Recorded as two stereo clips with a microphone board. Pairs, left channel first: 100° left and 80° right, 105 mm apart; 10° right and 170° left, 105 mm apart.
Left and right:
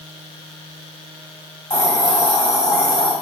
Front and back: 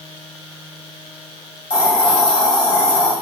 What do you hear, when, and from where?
1.7 s a hiss: 55° left, 2.5 m